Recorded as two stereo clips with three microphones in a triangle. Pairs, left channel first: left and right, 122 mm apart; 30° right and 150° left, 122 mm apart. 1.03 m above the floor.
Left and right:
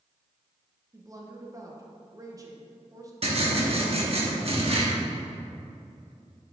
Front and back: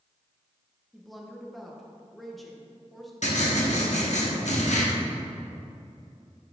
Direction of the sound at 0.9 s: 120° right.